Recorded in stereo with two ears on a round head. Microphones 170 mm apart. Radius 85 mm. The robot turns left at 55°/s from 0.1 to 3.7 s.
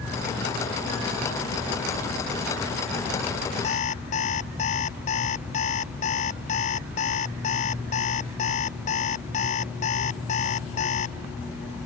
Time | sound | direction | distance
3.6 | an alarm clock | 40° left (ahead or behind) | ?